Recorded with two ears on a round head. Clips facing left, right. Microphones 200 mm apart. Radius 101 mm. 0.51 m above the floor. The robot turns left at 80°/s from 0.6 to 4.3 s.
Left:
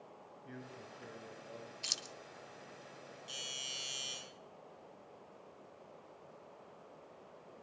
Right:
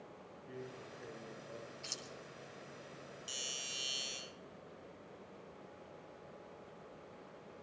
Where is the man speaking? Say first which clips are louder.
Right 2 dB; 90° left, 6.5 m; by 1.7 s straight ahead, 6.5 m.